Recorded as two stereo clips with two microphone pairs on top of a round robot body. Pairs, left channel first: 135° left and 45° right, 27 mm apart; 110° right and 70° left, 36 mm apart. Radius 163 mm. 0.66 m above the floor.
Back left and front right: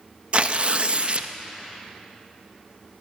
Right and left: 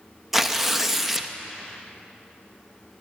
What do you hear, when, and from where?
0.3 s tearing paper: 15° right, 0.8 m